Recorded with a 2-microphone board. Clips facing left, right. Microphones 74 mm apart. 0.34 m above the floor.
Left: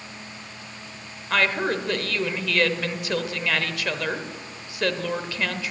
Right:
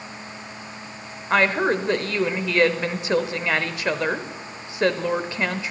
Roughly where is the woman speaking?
Right.